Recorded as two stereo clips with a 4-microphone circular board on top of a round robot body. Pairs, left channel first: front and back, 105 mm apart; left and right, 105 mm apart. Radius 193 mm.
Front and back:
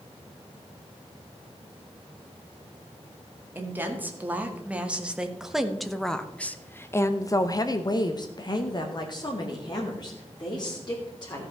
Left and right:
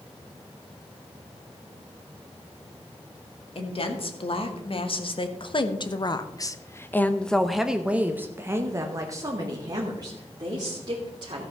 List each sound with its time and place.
3.5 s a woman speaking: 110° left, 2.5 m; by 11.5 s 45° right, 3 m